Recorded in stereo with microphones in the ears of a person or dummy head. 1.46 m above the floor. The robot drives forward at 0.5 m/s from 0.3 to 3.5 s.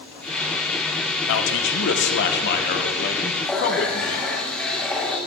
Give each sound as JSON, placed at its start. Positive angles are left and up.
{"t": 1.3, "sound": "a man speaking", "side_deg": 75, "distance_m": 1.5}
{"t": 3.4, "sound": "a running tap", "side_deg": 10, "distance_m": 3.0}